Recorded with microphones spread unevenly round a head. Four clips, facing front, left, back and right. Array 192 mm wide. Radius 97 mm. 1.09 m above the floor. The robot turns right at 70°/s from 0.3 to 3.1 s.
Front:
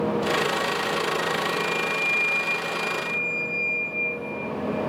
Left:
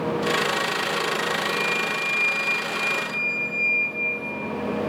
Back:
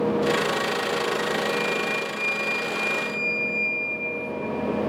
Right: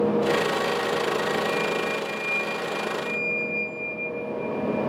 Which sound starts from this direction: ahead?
A flute, at 1.5 s.